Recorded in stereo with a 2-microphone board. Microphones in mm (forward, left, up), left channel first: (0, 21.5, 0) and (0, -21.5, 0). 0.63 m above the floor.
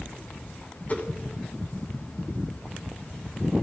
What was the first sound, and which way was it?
A whoosh, 40° left (ahead or behind).